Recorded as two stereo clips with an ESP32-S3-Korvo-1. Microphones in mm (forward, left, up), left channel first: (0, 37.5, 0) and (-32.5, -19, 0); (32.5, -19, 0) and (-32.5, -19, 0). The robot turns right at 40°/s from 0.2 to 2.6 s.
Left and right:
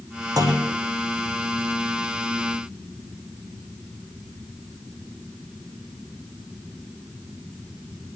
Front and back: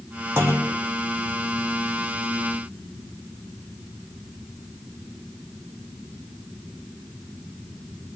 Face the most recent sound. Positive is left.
turn(degrees=-35)